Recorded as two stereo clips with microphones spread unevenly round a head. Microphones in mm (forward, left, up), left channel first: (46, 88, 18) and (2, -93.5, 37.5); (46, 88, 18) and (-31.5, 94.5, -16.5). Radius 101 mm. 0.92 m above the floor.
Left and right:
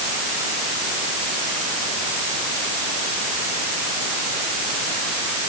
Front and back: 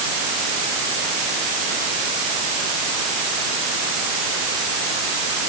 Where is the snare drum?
No snare drum in this recording.